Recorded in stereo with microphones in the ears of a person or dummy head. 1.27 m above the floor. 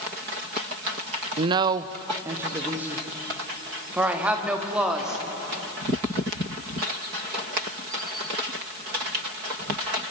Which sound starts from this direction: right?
A woman speaking, at 1.4 s.